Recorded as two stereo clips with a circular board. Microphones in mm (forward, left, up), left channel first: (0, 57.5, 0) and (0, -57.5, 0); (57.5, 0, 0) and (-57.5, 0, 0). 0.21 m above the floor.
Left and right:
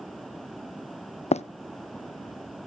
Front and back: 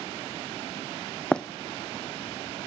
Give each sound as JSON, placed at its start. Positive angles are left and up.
{"t": 1.3, "sound": "running footsteps", "azimuth_deg": 80, "distance_m": 0.5}